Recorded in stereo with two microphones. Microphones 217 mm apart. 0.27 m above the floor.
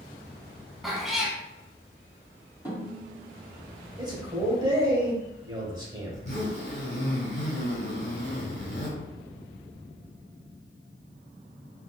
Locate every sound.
0.8 s a cat meowing: centre (ahead or behind), 0.7 m
2.6 s a snare drum: 15° left (ahead or behind), 1.7 m
4.0 s a man speaking: 20° right (ahead or behind), 1.0 m
6.1 s a zipper: 50° left (ahead or behind), 1.3 m